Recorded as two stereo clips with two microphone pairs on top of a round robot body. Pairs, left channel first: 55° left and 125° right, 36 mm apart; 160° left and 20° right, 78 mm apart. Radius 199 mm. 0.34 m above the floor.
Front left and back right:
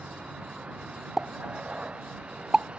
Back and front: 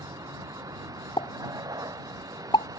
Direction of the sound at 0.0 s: 60° right.